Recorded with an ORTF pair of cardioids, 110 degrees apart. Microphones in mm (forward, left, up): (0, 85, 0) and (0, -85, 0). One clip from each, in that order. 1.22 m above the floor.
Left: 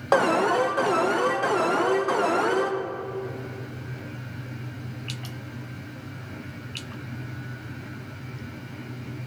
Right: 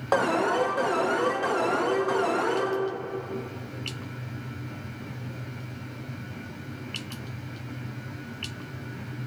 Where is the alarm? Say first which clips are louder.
Left 3 dB; 15° left, 0.5 m.